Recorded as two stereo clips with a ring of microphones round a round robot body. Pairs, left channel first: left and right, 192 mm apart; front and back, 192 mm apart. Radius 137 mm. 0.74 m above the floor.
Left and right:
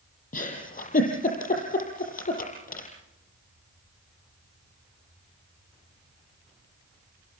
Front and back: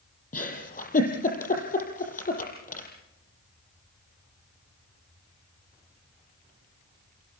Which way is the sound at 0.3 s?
45° left.